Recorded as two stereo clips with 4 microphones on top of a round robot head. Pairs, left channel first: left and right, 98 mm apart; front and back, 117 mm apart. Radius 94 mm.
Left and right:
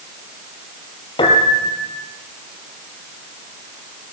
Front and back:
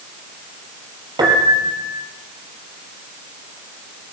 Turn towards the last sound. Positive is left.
turn(degrees=125)